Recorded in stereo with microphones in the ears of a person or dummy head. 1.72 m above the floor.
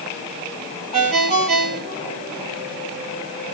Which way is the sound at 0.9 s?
45° right (ahead or behind).